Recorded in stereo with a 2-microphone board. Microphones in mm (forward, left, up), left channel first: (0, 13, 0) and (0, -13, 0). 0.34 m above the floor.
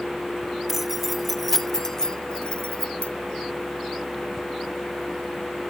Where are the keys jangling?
5° right (ahead or behind), 1.4 m; by 3.1 s 60° left (ahead or behind), 1.0 m.